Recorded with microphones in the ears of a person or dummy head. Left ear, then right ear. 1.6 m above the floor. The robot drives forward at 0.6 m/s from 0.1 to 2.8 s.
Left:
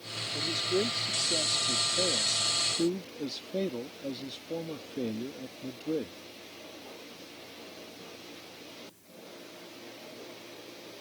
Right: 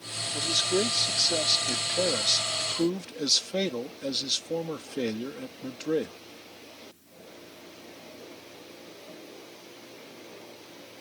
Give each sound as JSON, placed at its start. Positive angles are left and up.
{"t": 0.3, "sound": "a man speaking", "side_deg": -40}